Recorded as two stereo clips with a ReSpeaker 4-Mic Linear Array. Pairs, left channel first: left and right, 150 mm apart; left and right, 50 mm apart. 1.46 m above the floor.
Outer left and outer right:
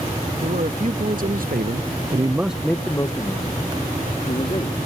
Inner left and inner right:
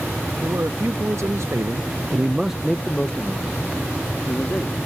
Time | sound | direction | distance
0.4 | a man speaking | 65° right (ahead or behind) | ?